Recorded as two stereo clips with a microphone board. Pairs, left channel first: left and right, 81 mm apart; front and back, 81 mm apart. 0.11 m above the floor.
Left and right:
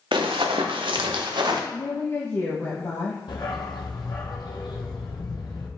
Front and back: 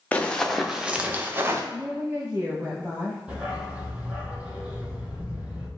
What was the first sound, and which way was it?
Running footsteps, 75° right.